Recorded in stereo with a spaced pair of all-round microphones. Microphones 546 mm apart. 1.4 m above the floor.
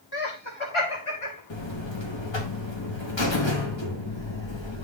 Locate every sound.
0.1 s laughter: 40° left (ahead or behind), 1.6 m; by 1.4 s 80° left, 1.7 m
1.5 s a buzzer: 55° left (ahead or behind), 1.1 m